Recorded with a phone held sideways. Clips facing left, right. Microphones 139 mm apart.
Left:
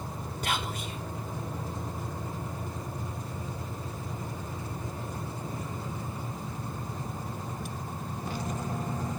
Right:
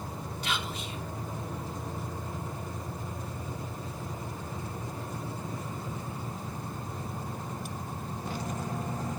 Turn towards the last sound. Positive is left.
turn(degrees=45)  # may be behind; listen again after turning